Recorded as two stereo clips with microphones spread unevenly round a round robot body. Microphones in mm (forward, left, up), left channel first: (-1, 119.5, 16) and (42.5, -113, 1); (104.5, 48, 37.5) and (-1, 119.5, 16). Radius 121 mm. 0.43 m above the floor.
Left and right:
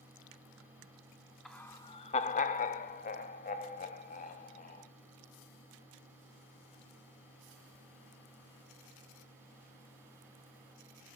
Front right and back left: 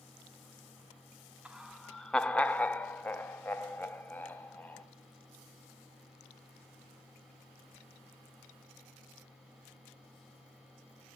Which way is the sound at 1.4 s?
165° right.